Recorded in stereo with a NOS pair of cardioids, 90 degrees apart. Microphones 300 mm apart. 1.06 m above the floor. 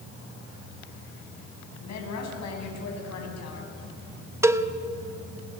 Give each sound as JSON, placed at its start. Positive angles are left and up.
{"t": 1.8, "sound": "a woman speaking", "azimuth_deg": 60, "distance_m": 8.0}
{"t": 4.4, "sound": "a cowbell", "azimuth_deg": -10, "distance_m": 1.1}